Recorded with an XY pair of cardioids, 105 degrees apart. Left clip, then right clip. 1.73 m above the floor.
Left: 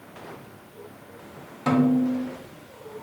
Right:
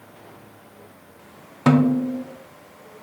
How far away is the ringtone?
I don't hear a ringtone.